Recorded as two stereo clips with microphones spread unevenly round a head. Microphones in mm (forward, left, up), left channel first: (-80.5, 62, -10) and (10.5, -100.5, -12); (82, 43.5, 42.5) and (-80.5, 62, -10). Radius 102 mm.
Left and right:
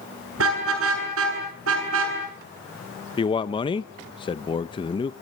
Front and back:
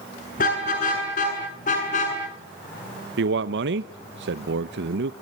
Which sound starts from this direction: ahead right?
A car horn, at 0.4 s.